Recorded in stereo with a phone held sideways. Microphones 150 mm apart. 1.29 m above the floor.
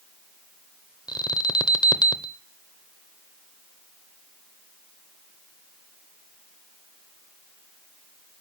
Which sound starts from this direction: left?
An alarm, at 1.1 s.